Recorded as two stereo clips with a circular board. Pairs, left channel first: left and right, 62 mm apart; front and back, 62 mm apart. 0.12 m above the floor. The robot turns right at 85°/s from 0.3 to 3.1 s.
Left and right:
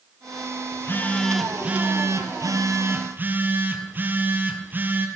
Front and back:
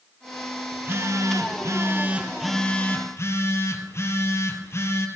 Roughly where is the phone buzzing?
Behind left.